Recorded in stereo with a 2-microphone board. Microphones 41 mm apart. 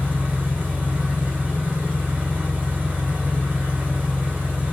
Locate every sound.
0.0 s an engine running: 40° right (ahead or behind), 1.6 m